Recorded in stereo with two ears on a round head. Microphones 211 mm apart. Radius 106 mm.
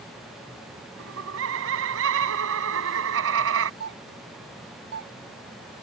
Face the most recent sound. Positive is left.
turn(degrees=-45)  # may be behind; listen again after turning